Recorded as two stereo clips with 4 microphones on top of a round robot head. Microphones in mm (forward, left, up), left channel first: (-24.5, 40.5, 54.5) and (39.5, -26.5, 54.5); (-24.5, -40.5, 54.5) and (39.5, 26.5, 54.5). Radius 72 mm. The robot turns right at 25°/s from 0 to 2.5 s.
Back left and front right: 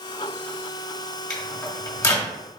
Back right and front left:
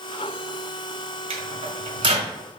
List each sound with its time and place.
1.3 s a microwave: 55° left, 1.8 m; by 2.3 s 80° left, 1.8 m